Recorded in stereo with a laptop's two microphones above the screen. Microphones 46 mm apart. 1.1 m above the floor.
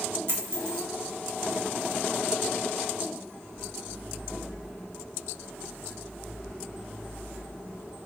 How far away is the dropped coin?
About 0.9 m.